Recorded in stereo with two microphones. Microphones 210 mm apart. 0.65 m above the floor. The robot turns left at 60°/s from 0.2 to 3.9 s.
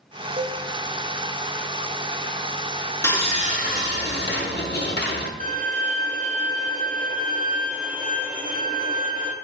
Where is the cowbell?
45° right (ahead or behind), 1.3 m; by 0.6 s 30° right (ahead or behind), 1.3 m.